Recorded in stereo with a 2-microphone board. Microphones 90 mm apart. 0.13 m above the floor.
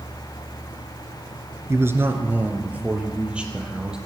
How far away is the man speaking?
About 1.5 m.